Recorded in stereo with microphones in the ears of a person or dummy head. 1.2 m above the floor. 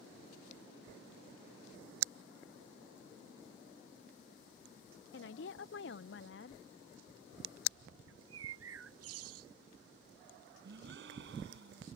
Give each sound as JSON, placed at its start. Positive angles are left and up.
{"t": 5.1, "sound": "a woman speaking", "side_deg": 60}
{"t": 8.1, "sound": "a bird", "side_deg": -85}
{"t": 10.6, "sound": "a gasp", "side_deg": -75}